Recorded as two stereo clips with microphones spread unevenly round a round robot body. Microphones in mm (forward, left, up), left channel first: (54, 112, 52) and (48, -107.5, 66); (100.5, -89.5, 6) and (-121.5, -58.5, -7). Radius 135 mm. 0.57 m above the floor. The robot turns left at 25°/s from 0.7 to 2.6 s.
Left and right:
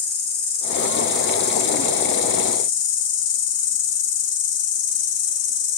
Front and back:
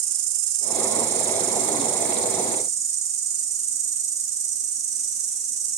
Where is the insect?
140° left, 1.7 m; by 5.8 s 95° left, 1.7 m.